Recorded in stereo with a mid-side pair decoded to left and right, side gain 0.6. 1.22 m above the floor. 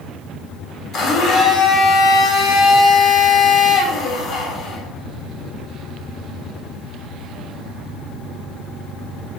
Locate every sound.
0.9 s a blender: 55° left, 1.4 m